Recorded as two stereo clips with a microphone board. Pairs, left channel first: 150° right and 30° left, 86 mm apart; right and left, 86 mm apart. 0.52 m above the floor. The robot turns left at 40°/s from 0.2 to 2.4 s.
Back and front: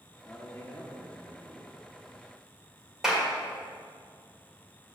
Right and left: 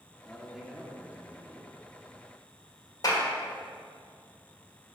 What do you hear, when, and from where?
0.2 s a man speaking: 175° right, 0.8 m; by 1.7 s 125° left, 0.8 m
3.0 s a clap: 55° right, 1.6 m